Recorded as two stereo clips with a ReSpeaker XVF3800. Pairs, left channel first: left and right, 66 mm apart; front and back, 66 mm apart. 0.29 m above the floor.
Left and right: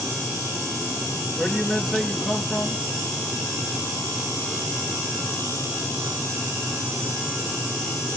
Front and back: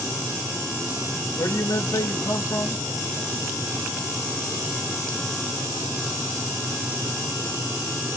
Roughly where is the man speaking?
Ahead.